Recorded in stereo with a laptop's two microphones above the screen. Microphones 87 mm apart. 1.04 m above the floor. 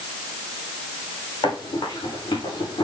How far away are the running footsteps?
About 6.5 m.